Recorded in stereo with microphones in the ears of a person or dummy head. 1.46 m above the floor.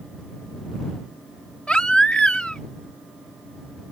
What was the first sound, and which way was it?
A baby crying, 5° left (ahead or behind).